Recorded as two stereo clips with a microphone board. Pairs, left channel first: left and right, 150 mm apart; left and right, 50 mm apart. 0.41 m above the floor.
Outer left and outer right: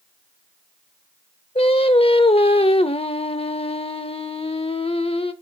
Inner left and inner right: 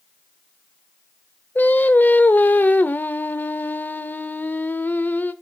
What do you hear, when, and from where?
1.6 s singing: 40° left (ahead or behind), 0.6 m